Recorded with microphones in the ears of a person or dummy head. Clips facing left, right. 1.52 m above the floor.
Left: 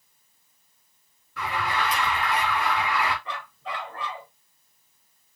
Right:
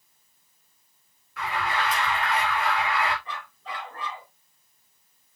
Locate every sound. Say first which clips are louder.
1.4 s an alarm: even; 85° left, 3.5 m
3.2 s a dog barking: left 3 dB; 60° left (ahead or behind), 3.5 m